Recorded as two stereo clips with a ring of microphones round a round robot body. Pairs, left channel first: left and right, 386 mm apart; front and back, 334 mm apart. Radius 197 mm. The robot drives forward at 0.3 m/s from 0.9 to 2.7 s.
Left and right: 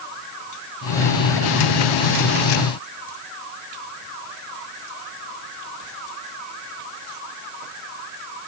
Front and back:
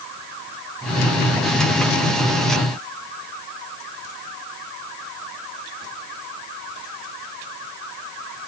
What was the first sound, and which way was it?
Only background noise.